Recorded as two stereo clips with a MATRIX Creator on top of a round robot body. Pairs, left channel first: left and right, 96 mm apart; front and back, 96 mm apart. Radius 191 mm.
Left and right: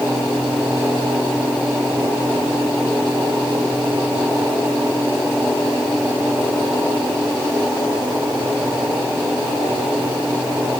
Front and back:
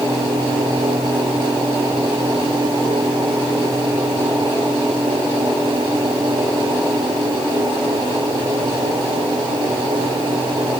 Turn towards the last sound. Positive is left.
No sound to turn to.